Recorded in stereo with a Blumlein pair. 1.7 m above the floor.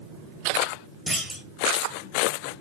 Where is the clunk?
5° right, 1.4 m.